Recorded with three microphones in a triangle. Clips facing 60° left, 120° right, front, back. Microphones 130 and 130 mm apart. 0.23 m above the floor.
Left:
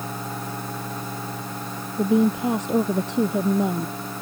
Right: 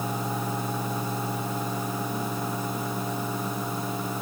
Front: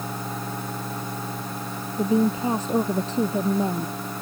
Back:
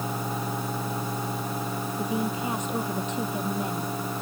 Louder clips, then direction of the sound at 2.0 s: Left 11 dB, front 9 dB; 55° left.